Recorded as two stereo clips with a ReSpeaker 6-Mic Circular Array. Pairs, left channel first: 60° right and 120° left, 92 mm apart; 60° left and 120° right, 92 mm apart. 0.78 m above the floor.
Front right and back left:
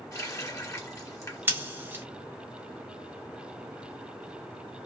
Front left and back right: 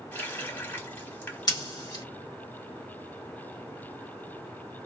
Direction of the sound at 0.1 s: 5° right.